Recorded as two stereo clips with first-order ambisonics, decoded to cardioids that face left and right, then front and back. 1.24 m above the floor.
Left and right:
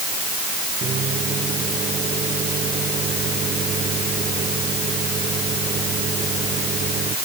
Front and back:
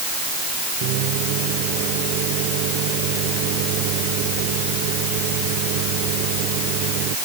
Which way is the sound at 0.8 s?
155° right.